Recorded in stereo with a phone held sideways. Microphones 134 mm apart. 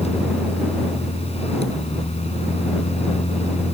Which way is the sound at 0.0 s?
50° left (ahead or behind).